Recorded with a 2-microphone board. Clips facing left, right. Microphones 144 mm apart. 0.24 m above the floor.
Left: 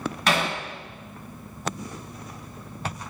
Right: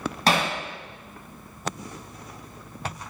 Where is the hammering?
35° right (ahead or behind), 1.7 m.